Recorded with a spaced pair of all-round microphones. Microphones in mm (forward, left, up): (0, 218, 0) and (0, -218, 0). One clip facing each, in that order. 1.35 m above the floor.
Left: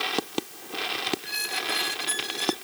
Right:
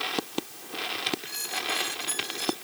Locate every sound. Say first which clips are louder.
1.2 s a squeak: left 2 dB; 85° left